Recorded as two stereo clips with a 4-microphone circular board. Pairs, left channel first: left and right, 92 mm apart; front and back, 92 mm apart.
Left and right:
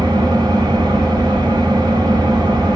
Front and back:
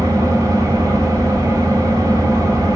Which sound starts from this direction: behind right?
An engine running, at 0.0 s.